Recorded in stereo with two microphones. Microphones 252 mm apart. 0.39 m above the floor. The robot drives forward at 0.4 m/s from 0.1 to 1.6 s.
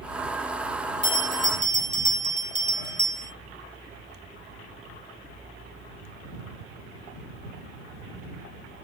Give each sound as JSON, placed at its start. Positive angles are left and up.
{"t": 1.0, "sound": "a bell", "side_deg": -85, "distance_m": 0.8}